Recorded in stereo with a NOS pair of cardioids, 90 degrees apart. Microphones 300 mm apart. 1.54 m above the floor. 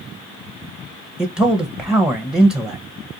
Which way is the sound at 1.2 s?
5° right.